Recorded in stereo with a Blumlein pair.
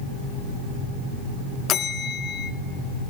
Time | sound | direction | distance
1.7 | a bell | 30° left | 0.7 m